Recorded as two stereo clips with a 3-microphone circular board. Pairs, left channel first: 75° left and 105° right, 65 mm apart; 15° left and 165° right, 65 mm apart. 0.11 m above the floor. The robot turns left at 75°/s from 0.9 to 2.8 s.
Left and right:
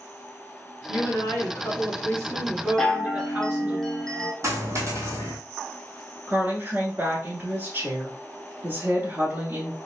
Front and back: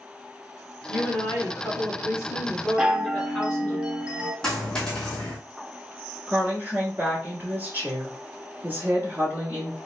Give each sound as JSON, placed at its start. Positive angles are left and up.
{"t": 0.9, "sound": "a woman speaking", "azimuth_deg": 100, "distance_m": 2.0}
{"t": 2.8, "sound": "a chime", "azimuth_deg": 145, "distance_m": 0.6}
{"t": 4.4, "sound": "a dropped coin", "azimuth_deg": -65, "distance_m": 1.5}
{"t": 6.3, "sound": "a woman speaking", "azimuth_deg": -130, "distance_m": 1.4}